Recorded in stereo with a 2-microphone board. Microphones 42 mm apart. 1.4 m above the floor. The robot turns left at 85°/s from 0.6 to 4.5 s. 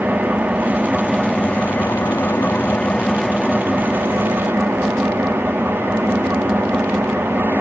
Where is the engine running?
125° right, 1.6 m; by 7.6 s 95° right, 1.6 m.